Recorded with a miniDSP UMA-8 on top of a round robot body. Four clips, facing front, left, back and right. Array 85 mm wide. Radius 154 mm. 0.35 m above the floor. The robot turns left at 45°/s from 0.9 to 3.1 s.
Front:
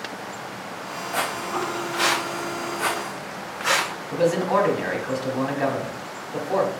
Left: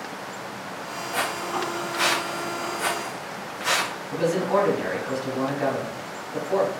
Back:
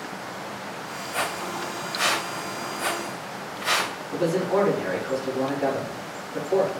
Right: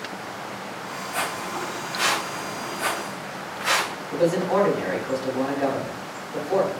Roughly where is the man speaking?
Ahead.